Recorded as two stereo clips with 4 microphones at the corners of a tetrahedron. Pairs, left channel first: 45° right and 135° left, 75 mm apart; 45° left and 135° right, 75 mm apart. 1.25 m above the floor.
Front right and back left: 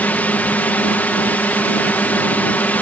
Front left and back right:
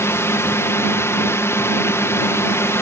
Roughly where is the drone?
Ahead.